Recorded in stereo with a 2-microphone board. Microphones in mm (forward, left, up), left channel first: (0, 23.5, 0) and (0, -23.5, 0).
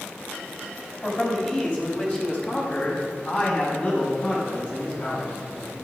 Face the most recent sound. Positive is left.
turn(degrees=40)  # may be behind; listen again after turning